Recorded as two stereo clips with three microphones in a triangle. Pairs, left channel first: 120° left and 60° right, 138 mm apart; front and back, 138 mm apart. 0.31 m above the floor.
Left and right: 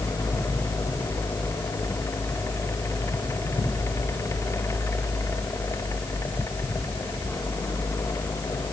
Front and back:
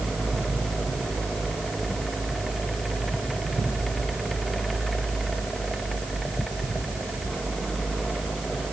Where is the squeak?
No squeak in this recording.